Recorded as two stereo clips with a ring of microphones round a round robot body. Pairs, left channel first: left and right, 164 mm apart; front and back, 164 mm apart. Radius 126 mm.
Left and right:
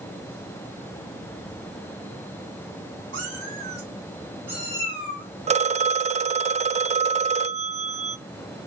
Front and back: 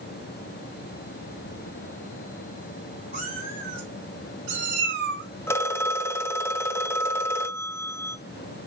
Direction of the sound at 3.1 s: 115° right.